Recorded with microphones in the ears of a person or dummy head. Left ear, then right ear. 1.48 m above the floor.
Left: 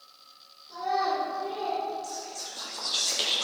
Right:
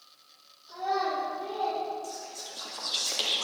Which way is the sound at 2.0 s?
10° right (ahead or behind).